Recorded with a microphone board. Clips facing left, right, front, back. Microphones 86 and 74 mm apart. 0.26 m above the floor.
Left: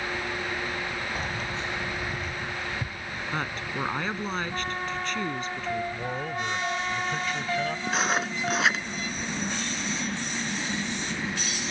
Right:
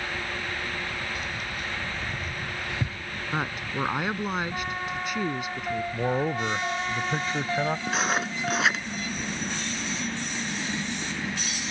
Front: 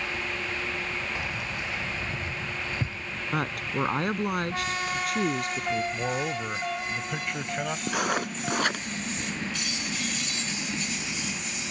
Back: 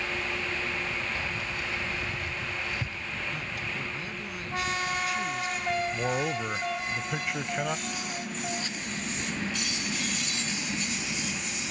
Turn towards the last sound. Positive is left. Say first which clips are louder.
# even, front 8 dB
turn(degrees=0)